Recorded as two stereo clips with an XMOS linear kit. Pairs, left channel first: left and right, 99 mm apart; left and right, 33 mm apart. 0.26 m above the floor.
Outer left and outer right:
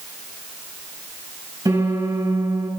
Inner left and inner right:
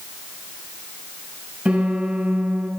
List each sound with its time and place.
1.6 s a piano: 40° right (ahead or behind), 6.5 m